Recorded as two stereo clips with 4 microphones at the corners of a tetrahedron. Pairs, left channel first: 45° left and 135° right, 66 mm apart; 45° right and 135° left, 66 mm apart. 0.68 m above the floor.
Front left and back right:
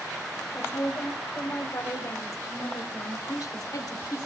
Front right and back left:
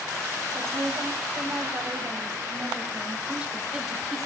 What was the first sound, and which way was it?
A woman speaking, 95° left.